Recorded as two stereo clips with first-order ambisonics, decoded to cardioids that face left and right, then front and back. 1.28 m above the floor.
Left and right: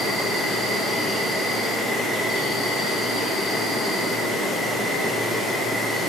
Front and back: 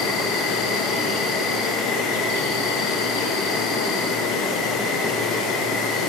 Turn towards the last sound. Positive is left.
turn(degrees=15)